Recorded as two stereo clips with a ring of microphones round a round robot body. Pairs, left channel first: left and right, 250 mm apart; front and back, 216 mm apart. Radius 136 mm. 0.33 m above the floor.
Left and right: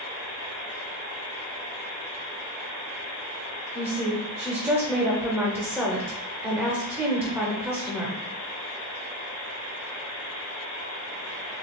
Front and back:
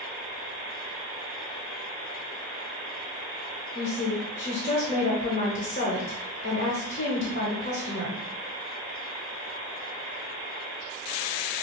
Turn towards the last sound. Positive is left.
turn(degrees=-15)